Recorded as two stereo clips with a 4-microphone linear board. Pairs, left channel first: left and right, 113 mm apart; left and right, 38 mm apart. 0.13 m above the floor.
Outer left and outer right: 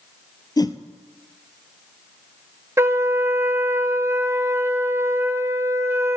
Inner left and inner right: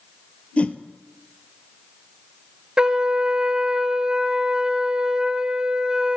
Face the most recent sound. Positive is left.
turn(degrees=-25)  # may be behind; listen again after turning